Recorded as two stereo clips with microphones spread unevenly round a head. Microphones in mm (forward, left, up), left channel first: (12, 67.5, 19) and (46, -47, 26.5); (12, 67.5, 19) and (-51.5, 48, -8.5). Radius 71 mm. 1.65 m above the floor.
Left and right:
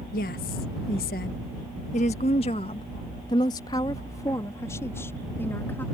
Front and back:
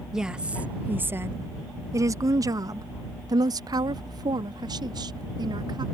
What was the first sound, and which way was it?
A woman speaking, 110° left.